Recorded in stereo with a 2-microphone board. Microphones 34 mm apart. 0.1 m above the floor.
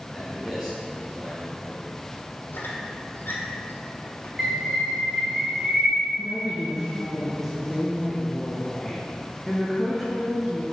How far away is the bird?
About 1.8 m.